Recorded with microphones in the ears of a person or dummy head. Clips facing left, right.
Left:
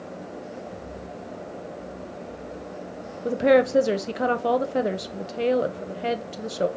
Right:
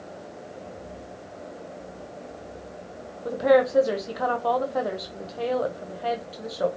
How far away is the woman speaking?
About 0.7 m.